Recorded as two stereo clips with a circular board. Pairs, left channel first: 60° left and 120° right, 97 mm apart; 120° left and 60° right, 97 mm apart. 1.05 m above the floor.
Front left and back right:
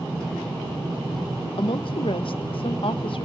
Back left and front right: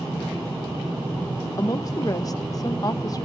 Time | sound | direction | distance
1.6 | a woman speaking | 70° left | 1.1 m